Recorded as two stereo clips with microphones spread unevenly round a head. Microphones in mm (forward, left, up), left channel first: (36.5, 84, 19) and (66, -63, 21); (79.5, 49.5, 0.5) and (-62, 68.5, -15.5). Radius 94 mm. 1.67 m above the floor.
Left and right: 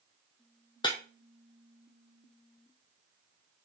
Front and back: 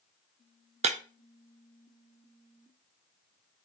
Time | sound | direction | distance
0.8 | breaking glass | 155° left | 1.0 m